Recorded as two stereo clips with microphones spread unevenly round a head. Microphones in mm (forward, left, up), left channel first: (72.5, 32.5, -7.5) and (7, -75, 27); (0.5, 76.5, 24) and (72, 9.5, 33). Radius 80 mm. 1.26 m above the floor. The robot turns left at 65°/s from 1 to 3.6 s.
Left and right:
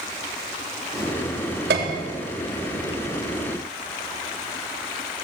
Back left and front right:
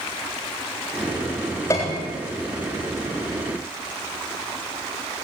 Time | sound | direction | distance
1.7 | a piano | 155° right | 3.5 m